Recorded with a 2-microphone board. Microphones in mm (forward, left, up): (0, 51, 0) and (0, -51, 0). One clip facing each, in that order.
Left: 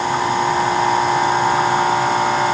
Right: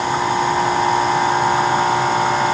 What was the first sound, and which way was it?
Only background noise.